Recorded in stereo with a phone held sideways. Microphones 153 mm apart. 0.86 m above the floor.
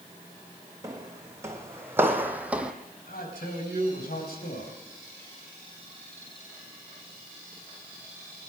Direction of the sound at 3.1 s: 85° left.